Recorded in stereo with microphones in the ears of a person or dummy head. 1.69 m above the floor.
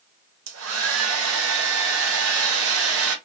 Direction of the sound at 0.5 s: 75° right (ahead or behind).